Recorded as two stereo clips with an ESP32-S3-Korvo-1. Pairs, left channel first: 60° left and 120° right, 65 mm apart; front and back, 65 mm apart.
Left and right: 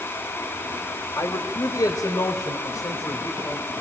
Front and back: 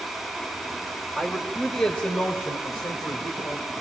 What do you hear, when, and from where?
1.2 s a man speaking: 80° left, 3 m; by 3.7 s 20° left, 4 m